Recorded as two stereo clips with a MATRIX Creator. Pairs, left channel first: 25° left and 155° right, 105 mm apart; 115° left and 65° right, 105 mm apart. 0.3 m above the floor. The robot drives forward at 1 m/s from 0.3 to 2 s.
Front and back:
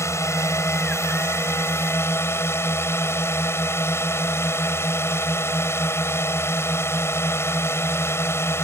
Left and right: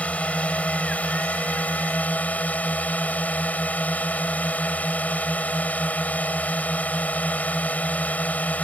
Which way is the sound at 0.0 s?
50° left.